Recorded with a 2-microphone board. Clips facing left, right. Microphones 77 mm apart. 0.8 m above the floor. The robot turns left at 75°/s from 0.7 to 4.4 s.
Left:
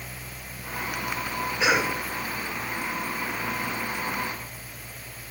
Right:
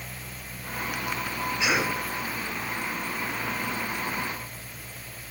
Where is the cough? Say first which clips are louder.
Left 3 dB; 35° left (ahead or behind), 8.5 m; by 1.9 s 10° left (ahead or behind), 8.5 m.